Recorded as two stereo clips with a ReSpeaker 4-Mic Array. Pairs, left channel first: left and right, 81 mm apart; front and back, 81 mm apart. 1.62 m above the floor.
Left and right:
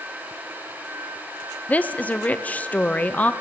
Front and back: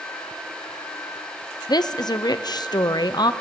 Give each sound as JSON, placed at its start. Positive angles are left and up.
{"t": 1.7, "sound": "a woman speaking", "azimuth_deg": 20, "distance_m": 0.5}